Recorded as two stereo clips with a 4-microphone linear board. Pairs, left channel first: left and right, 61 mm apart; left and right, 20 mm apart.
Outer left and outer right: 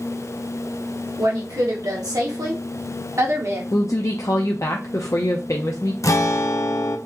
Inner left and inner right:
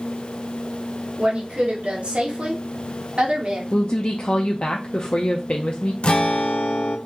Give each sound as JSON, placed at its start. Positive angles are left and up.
{"t": 1.2, "sound": "a woman speaking", "side_deg": -80, "distance_m": 1.7}
{"t": 3.7, "sound": "a woman speaking", "side_deg": 55, "distance_m": 0.5}
{"t": 6.0, "sound": "a guitar", "side_deg": 60, "distance_m": 0.6}